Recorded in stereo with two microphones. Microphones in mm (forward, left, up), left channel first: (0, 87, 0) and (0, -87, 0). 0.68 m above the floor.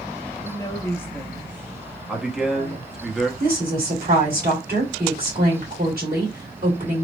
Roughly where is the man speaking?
Centre.